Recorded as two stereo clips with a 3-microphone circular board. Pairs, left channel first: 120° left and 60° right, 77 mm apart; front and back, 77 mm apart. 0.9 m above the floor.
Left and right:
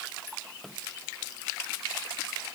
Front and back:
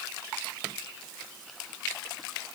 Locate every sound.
Only background noise.